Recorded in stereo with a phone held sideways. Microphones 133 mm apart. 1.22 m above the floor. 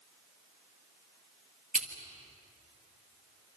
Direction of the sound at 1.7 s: 75° right (ahead or behind).